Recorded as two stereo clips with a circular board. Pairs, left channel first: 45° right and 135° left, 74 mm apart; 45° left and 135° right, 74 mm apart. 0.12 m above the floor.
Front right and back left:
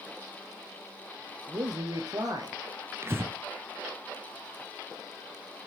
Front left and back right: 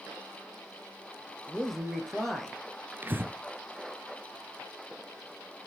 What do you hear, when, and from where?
1.5 s a man speaking: 130° left, 2 m
3.0 s breathing: 175° left, 0.6 m